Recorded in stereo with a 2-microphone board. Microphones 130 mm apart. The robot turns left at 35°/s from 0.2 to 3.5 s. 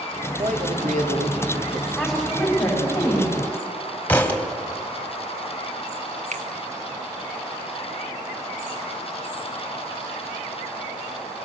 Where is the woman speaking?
175° right, 4.5 m; by 3.3 s 140° left, 4.5 m.